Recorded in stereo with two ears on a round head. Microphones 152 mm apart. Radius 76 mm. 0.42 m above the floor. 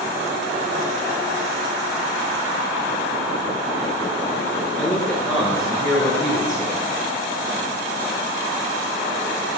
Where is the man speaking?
5° left (ahead or behind), 0.9 m; by 6.8 s 5° right (ahead or behind), 2 m.